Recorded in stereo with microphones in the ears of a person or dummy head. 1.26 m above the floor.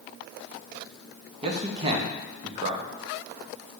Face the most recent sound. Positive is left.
turn(degrees=-30)  # may be behind; listen again after turning